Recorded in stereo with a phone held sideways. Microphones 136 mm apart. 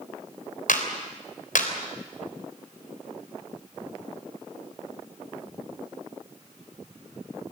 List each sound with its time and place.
0.7 s a clap: 75° left (ahead or behind), 3.5 m